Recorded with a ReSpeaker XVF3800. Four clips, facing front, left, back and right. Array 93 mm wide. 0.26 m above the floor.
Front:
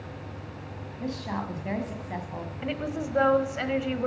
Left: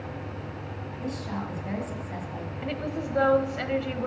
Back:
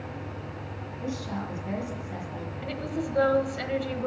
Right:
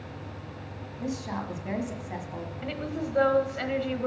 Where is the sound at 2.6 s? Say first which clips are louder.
Left 1 dB, front 1 dB; 5° left, 1.1 m.